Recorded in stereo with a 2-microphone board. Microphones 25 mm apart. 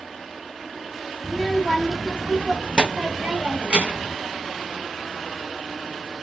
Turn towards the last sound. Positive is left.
turn(degrees=-45)  # may be behind; listen again after turning